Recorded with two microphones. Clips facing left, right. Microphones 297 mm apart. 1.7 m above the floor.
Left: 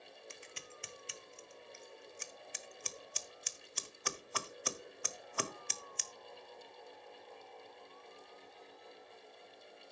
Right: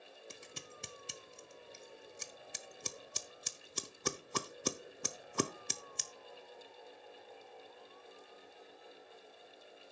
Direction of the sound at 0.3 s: 45° right (ahead or behind).